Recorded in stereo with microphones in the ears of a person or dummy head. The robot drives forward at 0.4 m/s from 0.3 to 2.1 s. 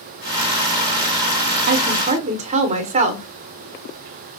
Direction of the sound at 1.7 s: 55° right (ahead or behind).